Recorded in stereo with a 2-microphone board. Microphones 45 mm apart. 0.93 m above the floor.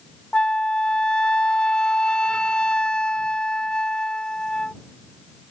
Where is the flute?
20° left (ahead or behind).